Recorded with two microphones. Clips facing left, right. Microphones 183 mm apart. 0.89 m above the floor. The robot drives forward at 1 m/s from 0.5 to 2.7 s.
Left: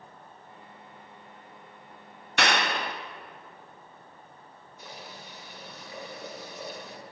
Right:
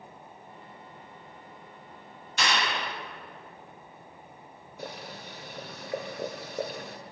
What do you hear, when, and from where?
2.4 s a clap: 70° left (ahead or behind), 0.7 m; by 3.0 s 50° left (ahead or behind), 0.9 m
4.8 s boiling: 65° right (ahead or behind), 1.3 m